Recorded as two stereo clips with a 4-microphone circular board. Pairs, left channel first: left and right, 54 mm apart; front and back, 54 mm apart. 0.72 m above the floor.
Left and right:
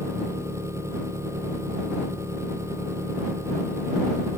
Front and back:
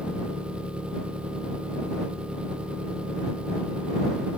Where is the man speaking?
I don't hear a man speaking.